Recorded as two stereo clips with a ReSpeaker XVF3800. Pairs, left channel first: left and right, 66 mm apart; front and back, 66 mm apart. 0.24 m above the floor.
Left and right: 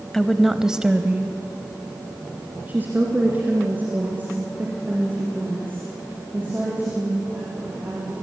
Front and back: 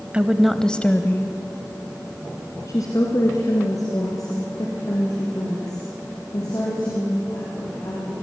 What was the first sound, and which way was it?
A woman speaking, 165° left.